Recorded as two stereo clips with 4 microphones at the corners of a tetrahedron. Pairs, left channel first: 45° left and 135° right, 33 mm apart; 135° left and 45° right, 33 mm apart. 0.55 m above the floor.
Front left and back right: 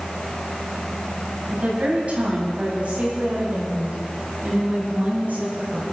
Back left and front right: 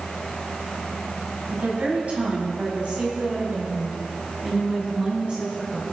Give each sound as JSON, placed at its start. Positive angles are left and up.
{"t": 1.5, "sound": "a woman speaking", "azimuth_deg": -80, "distance_m": 4.5}